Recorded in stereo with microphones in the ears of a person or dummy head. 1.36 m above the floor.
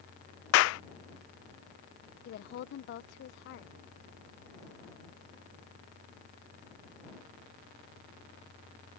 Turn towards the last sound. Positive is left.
turn(degrees=65)  # may be behind; listen again after turning